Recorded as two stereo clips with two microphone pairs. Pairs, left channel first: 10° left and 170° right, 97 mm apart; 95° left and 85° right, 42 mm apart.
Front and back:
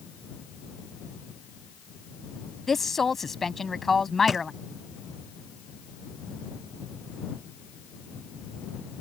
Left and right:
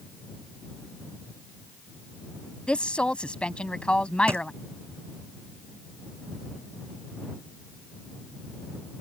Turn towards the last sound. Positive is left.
turn(degrees=-80)